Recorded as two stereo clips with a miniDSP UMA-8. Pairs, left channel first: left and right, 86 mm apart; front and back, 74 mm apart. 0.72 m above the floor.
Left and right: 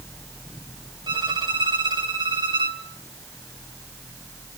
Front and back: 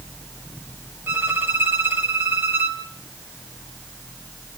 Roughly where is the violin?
Behind right.